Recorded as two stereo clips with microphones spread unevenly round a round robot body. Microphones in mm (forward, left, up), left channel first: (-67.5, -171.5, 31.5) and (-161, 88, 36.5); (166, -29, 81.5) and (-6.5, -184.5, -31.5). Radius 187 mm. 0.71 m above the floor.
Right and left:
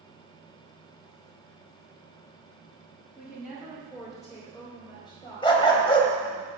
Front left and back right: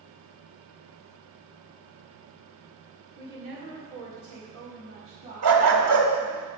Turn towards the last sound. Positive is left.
turn(degrees=-145)